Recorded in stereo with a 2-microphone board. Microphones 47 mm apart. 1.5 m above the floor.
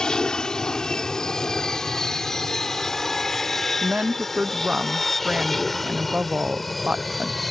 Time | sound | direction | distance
0.0 | an aircraft | 15° left (ahead or behind) | ?
3.8 | a woman speaking | 25° right (ahead or behind) | ?